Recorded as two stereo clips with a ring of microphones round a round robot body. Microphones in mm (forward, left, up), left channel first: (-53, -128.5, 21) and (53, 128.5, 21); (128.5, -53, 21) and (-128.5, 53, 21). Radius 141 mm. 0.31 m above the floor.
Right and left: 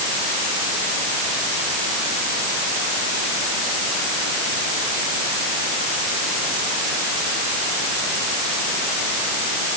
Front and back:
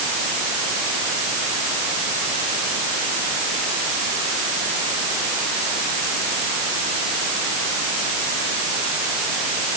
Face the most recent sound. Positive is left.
No sound to turn to.